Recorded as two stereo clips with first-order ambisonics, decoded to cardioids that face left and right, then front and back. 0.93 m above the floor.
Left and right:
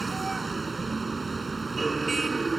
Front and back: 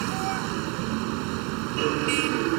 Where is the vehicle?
170° right.